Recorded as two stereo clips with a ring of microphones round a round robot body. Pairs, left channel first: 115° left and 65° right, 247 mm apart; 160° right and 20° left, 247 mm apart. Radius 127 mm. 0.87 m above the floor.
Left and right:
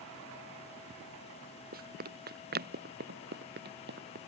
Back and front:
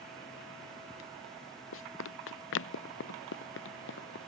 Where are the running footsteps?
120° right; by 4.2 s 115° right.